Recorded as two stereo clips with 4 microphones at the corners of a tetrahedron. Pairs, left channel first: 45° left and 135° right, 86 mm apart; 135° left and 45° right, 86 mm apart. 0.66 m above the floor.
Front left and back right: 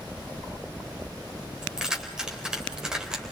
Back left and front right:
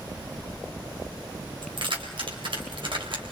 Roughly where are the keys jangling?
Ahead right.